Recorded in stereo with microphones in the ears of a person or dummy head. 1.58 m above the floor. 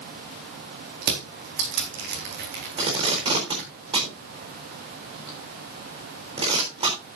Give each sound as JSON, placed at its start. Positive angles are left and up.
{"t": 1.0, "sound": "crushing", "side_deg": -55, "distance_m": 4.0}
{"t": 2.8, "sound": "tape being pulled", "side_deg": -25, "distance_m": 4.0}